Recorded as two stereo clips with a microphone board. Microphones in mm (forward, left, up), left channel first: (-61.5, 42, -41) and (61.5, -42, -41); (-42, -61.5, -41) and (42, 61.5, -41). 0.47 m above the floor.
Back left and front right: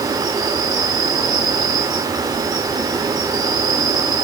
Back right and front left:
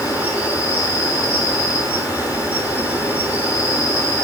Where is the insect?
10° right, 1.2 m.